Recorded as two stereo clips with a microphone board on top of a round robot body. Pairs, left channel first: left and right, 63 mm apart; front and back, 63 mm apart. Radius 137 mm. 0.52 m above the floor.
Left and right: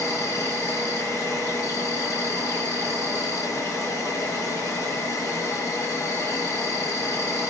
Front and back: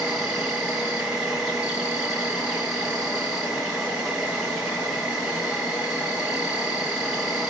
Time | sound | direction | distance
0.0 | an insect | 100° left | 2.5 m